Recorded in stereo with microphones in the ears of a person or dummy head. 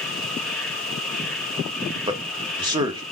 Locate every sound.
0.0 s an insect: 10° left (ahead or behind), 3 m
2.1 s a man speaking: 15° right (ahead or behind), 1.4 m